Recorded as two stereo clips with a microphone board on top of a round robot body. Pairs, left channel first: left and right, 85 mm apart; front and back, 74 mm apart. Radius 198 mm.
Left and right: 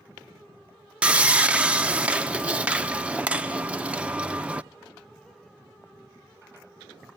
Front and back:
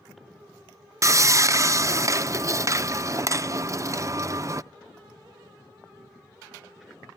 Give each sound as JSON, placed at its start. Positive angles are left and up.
{"t": 1.0, "sound": "sawing", "azimuth_deg": -160, "distance_m": 0.7}